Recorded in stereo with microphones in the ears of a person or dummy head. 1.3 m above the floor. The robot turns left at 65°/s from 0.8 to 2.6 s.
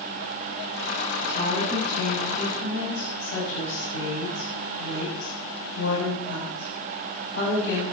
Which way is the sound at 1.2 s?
165° left.